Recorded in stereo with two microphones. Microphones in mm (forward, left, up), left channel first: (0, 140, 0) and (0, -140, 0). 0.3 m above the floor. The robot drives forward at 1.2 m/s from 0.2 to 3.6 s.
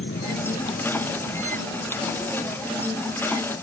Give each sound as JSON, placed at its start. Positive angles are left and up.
{"t": 0.0, "sound": "an insect", "side_deg": 45}